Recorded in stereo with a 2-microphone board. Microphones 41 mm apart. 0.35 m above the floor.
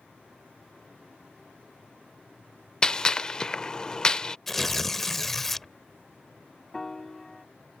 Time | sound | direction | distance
2.8 | a gunshot | 20° left (ahead or behind) | ?
4.5 | tearing paper | 5° left (ahead or behind) | ?
6.7 | a piano | 15° left (ahead or behind) | ?